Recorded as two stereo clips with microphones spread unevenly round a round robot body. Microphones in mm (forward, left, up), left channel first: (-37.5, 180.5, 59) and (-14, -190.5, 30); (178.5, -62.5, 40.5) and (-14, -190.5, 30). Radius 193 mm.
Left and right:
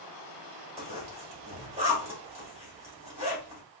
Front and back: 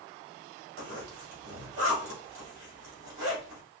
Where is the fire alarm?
No fire alarm in this recording.